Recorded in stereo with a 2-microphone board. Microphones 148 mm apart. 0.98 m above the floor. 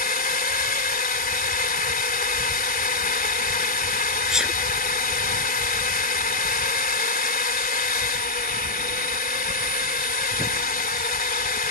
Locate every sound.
0.0 s a drone: 80° left
4.3 s a sneeze: 5° right (ahead or behind)